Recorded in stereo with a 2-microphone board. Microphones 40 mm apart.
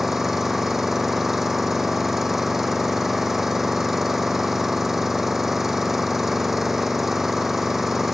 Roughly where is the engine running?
Centre.